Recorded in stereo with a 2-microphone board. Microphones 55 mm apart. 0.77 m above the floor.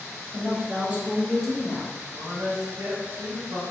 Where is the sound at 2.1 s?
60° right (ahead or behind), 1.5 m.